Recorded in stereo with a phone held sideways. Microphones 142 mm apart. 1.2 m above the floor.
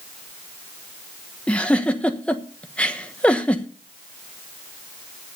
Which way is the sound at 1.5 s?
10° left (ahead or behind).